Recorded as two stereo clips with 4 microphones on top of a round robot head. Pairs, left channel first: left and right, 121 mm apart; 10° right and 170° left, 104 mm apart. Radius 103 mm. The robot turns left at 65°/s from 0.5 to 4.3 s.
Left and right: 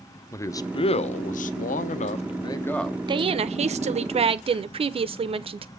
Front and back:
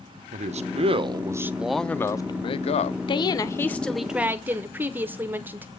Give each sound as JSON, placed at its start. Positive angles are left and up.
{"t": 0.3, "sound": "a man speaking", "azimuth_deg": 160, "distance_m": 0.6}
{"t": 3.1, "sound": "a woman speaking", "azimuth_deg": -45, "distance_m": 0.7}